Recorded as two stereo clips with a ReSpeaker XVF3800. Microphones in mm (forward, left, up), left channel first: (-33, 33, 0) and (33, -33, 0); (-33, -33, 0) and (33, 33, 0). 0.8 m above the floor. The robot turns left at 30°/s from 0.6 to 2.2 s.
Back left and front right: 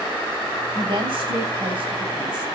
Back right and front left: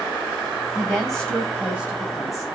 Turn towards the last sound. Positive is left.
turn(degrees=-80)